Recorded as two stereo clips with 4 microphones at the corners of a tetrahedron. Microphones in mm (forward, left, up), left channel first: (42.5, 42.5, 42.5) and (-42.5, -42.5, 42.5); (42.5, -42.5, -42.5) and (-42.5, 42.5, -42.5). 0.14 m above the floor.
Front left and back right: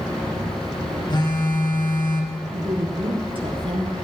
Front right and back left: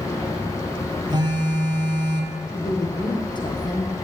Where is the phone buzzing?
90° left, 2.5 m.